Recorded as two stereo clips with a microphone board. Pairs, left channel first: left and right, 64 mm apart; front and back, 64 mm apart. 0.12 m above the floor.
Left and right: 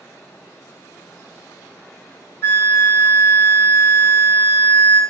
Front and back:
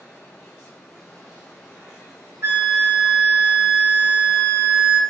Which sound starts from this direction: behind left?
A flute, at 2.4 s.